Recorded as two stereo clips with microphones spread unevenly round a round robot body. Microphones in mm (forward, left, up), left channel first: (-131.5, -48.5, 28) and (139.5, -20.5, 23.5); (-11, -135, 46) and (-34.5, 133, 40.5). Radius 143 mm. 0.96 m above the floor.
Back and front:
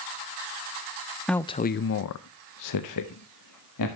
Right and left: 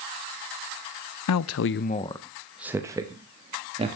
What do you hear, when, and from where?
1.3 s a man speaking: 85° right, 0.5 m; by 4.0 s 165° left, 1.6 m